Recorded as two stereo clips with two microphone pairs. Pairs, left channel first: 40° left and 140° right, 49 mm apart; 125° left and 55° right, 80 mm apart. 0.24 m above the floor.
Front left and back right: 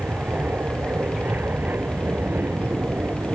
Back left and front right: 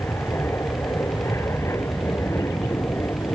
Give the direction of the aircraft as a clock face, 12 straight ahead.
6 o'clock.